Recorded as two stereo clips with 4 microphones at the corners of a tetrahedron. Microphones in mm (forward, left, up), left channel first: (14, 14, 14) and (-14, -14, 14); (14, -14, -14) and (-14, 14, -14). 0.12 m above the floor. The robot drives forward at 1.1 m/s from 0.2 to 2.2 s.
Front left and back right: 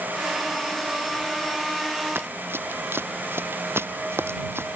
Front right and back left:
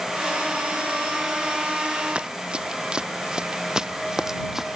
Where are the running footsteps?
160° right; by 4.8 s 145° right.